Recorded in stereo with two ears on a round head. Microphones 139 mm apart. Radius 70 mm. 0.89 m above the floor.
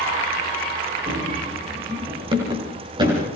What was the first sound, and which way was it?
Running footsteps, 35° right (ahead or behind).